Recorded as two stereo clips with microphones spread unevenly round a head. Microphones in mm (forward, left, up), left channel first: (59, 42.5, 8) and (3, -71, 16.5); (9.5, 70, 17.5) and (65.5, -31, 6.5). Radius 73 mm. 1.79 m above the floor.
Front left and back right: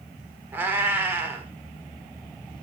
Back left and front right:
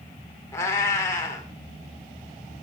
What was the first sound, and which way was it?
A cat meowing, 175° left.